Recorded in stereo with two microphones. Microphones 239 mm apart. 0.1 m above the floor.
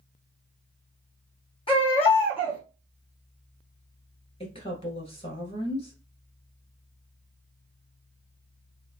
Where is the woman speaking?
25° left (ahead or behind), 1.6 m.